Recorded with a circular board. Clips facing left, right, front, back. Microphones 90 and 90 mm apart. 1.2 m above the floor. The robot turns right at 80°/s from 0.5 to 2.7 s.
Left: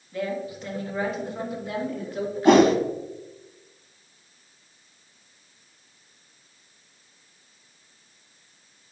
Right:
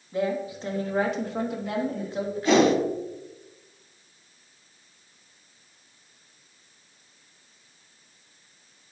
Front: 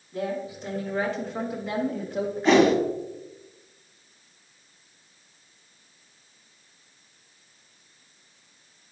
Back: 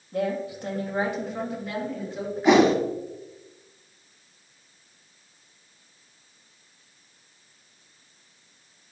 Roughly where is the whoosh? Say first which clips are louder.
Left 4 dB, back 1 dB; left.